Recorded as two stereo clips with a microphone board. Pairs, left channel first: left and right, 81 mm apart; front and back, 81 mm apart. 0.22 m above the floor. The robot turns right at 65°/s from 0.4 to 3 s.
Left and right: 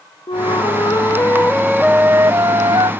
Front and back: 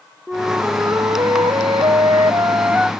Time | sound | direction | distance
0.3 | a flute | 95° left | ?